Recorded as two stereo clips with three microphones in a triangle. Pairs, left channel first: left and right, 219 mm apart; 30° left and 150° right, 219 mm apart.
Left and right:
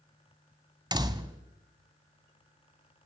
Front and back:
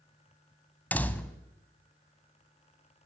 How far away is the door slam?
About 1.1 m.